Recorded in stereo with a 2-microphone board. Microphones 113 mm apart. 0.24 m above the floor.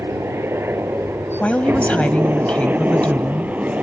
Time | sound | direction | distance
0.0 | a helicopter | 20° right (ahead or behind) | ?
1.4 | a woman speaking | 15° left (ahead or behind) | ?